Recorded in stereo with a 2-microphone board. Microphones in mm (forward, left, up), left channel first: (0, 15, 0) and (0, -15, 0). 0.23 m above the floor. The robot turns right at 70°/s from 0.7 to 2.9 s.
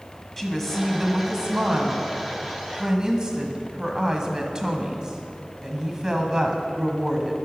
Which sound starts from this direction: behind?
A woman speaking, at 0.4 s.